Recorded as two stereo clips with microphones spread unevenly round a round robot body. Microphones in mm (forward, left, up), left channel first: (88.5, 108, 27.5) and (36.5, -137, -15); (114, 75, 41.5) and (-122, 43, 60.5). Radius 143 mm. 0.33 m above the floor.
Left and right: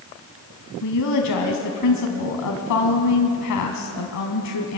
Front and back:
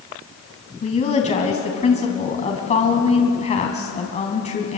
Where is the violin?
No violin in this recording.